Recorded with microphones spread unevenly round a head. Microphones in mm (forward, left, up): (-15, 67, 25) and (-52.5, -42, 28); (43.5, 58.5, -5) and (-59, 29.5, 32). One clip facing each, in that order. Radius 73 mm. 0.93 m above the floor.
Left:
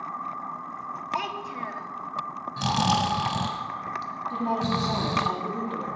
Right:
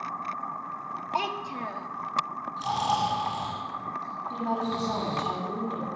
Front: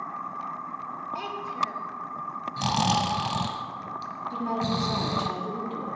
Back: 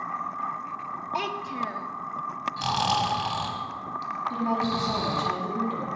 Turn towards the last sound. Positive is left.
turn(degrees=160)